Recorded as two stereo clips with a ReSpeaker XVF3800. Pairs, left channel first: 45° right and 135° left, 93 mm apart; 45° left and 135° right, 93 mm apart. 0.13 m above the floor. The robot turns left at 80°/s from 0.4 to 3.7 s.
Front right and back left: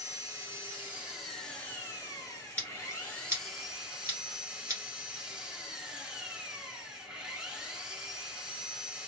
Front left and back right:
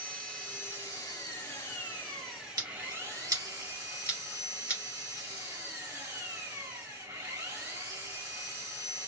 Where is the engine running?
110° left, 1.7 m; by 9.1 s 155° right, 1.7 m.